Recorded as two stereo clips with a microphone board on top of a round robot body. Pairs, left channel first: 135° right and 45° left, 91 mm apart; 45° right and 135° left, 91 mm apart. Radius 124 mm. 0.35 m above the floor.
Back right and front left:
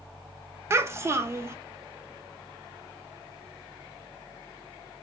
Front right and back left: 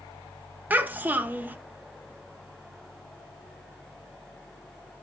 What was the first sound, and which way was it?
A child speaking, 80° left.